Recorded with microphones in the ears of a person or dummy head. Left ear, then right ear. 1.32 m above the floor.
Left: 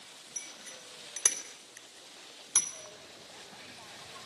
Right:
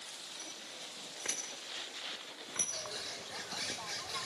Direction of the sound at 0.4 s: 75° left (ahead or behind).